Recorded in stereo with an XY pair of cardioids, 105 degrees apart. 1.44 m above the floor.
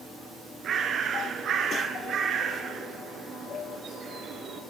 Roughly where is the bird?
Ahead right.